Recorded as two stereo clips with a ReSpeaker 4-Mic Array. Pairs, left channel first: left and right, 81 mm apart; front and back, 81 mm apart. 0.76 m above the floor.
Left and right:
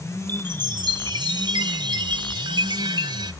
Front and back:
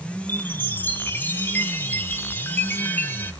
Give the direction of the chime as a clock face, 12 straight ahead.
2 o'clock.